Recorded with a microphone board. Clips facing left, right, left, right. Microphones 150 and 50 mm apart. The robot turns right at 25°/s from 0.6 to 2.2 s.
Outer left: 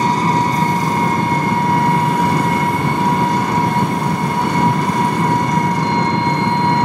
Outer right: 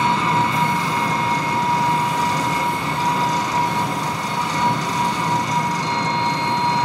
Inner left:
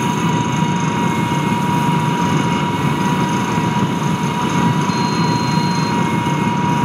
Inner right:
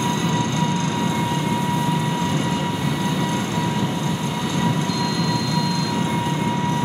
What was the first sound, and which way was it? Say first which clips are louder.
An engine running: outer left 3 dB, inner left 4 dB; 50° left.